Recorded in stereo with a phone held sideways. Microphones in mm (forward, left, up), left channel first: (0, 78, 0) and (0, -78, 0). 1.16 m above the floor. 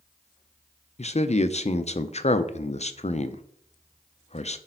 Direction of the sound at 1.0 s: 45° left (ahead or behind).